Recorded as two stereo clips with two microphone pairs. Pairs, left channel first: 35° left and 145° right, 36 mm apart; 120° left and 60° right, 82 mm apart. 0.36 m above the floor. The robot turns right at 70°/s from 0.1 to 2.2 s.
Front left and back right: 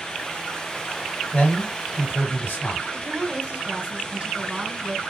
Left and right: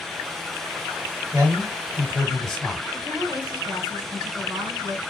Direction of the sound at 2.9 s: 85° right.